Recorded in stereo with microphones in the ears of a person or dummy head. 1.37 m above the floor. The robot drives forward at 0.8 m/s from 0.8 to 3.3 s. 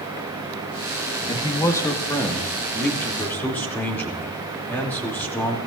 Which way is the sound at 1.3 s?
20° left (ahead or behind).